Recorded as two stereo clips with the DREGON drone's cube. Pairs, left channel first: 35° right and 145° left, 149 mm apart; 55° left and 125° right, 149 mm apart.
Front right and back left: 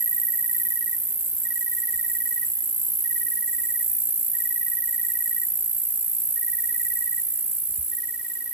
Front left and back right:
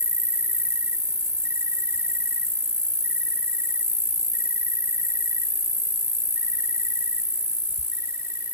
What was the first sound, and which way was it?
An insect, 160° left.